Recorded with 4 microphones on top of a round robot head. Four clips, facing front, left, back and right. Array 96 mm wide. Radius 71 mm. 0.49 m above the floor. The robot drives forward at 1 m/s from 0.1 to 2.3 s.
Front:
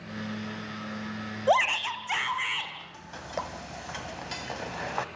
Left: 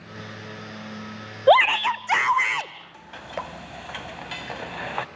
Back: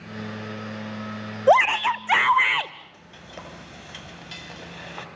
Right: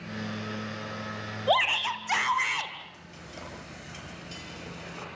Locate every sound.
1.5 s a shout: 125° left, 1.1 m; by 2.7 s 150° left, 1.6 m
2.8 s frying: 60° left, 1.6 m